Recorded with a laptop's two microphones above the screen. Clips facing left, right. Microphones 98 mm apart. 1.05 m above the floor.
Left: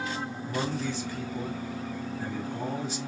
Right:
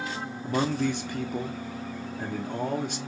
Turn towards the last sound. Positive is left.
turn(degrees=-60)  # may be behind; listen again after turning